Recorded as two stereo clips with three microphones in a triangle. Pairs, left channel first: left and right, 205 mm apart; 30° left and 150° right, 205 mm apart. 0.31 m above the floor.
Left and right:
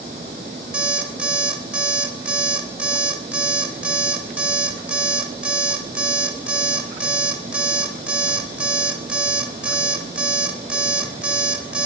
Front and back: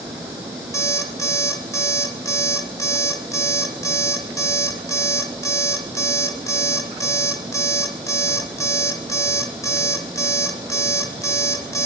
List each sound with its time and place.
0.7 s an alarm clock: 15° right, 0.7 m